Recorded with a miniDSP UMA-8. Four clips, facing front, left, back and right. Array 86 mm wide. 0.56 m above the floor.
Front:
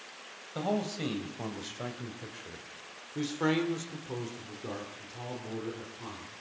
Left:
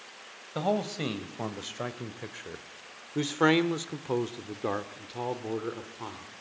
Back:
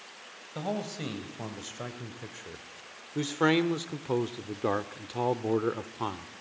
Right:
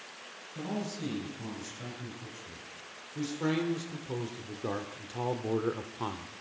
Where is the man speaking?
90° left, 2.5 m; by 6.3 s 160° right, 1.5 m.